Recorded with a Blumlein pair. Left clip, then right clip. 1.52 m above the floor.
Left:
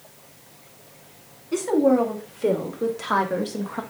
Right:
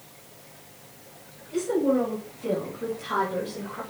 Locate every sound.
1.5 s a woman speaking: 50° left, 3 m; by 3.8 s 65° left, 1.9 m